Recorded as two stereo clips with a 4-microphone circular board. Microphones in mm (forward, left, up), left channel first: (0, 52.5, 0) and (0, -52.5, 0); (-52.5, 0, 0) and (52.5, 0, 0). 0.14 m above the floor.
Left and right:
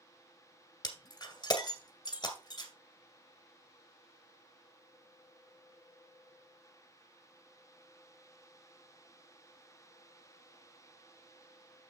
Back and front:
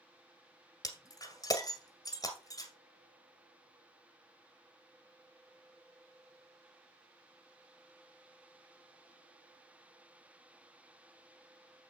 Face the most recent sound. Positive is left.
turn(degrees=135)